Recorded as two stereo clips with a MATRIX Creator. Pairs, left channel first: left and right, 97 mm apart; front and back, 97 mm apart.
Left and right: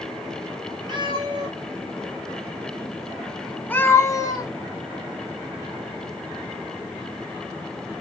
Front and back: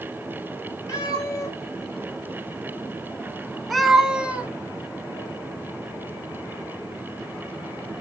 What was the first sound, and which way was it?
A cat meowing, 50° right.